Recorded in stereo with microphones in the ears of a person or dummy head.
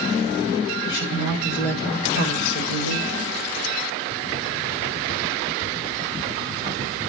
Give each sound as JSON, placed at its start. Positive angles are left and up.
{"t": 0.8, "sound": "a woman speaking", "side_deg": 45, "distance_m": 4.0}